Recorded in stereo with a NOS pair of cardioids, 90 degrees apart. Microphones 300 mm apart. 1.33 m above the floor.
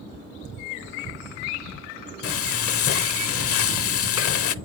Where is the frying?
50° left, 0.6 m.